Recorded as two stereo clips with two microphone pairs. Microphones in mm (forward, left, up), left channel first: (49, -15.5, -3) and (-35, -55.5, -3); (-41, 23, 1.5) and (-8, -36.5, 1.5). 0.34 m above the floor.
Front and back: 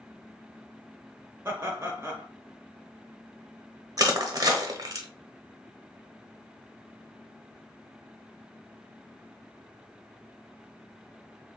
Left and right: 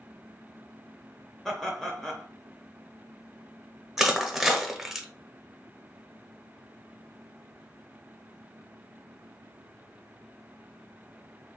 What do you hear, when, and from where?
1.4 s laughter: 165° right, 1.1 m
4.0 s crushing: 145° right, 0.8 m